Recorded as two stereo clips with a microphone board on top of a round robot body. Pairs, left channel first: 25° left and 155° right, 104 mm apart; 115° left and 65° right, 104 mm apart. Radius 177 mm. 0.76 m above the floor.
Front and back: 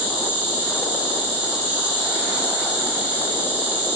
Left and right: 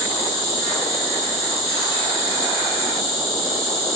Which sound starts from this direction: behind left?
An insect, at 0.0 s.